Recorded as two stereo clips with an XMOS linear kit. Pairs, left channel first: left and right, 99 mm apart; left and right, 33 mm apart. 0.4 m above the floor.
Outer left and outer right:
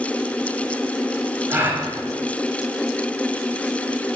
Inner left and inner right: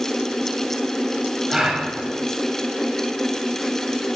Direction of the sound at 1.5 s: 30° right (ahead or behind).